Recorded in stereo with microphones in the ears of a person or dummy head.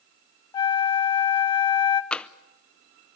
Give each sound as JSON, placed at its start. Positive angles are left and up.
{"t": 0.5, "sound": "a flute", "side_deg": 25, "distance_m": 0.6}
{"t": 2.1, "sound": "tapping", "side_deg": 5, "distance_m": 0.6}